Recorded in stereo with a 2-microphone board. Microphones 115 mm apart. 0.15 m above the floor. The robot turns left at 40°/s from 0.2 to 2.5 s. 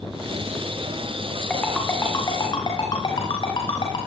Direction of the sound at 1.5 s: 5° left (ahead or behind).